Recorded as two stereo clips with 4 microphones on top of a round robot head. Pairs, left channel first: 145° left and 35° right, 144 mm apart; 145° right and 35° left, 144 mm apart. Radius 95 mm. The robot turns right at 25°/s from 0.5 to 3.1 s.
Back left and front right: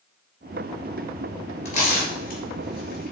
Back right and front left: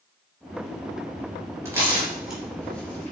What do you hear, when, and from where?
1.6 s tearing paper: 105° left, 4 m; by 3.1 s 140° left, 4 m